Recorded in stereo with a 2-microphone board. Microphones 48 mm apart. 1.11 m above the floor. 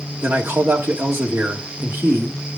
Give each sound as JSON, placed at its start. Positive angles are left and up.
{"t": 0.2, "sound": "a man speaking", "side_deg": -55, "distance_m": 2.0}